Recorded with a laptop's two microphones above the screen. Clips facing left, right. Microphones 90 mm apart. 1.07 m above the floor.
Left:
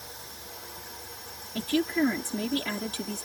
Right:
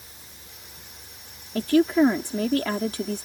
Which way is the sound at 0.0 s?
80° left.